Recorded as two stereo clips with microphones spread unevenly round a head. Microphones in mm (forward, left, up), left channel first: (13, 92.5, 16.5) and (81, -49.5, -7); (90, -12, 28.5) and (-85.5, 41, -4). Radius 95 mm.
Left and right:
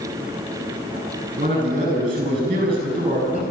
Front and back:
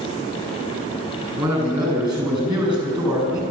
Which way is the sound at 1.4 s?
130° right.